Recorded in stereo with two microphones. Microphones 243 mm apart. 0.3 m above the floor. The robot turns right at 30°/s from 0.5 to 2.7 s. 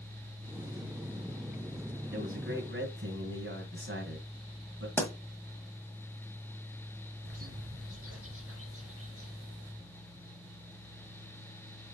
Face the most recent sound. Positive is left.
turn(degrees=-70)  # may be behind; listen again after turning